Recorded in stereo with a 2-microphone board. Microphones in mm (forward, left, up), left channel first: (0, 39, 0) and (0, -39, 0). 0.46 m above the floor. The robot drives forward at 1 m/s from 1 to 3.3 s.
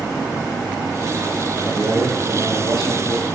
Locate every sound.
1.6 s a man speaking: 70° right (ahead or behind), 8.5 m; by 3.3 s 80° right, 8 m